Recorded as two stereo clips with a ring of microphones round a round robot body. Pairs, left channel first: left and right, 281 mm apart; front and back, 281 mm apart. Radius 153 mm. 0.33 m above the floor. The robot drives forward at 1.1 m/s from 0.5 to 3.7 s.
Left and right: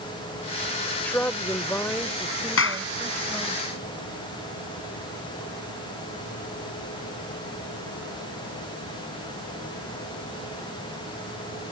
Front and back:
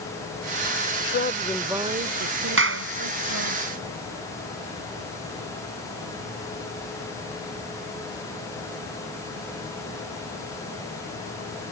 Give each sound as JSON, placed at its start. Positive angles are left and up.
{"t": 1.0, "sound": "a woman speaking", "azimuth_deg": 10}
{"t": 2.6, "sound": "a clap", "azimuth_deg": 135}